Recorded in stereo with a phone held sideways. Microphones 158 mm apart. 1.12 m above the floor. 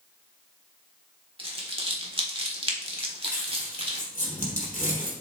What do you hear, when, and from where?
1.4 s crumpling: 35° right (ahead or behind), 1.4 m
3.0 s crumpling: 55° left (ahead or behind), 4 m